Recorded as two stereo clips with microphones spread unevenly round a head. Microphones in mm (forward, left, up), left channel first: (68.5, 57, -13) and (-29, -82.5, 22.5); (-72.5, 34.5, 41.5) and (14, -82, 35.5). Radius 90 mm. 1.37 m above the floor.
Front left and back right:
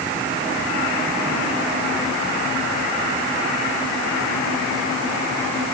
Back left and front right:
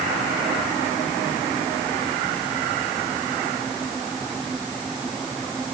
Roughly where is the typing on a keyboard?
No typing on a keyboard in this recording.